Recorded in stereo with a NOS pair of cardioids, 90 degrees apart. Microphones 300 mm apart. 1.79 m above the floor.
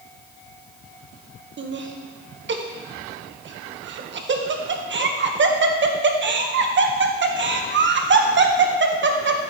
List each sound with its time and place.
1.6 s laughter: 40° right, 1.3 m